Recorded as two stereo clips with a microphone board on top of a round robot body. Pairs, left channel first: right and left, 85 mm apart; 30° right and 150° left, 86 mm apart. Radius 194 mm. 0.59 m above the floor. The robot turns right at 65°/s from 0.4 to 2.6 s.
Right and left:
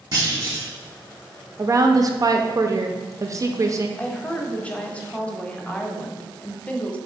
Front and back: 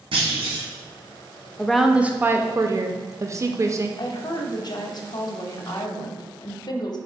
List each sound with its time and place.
0.1 s a clunk: 135° left, 1.2 m; by 0.7 s 150° left, 1.2 m
1.6 s a woman speaking: 50° left, 0.6 m; by 3.9 s 115° left, 0.6 m
4.0 s a woman speaking: 20° right, 0.8 m